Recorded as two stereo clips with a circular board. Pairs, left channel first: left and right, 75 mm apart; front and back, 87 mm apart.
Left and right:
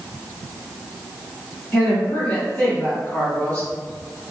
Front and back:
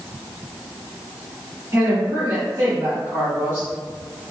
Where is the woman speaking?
140° left, 1.8 m.